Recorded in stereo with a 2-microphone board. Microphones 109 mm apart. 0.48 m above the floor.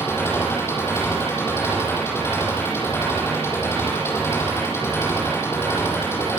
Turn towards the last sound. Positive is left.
turn(degrees=20)  # may be behind; listen again after turning